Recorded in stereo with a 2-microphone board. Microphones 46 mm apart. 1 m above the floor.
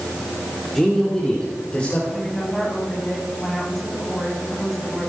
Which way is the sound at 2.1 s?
Centre (ahead or behind).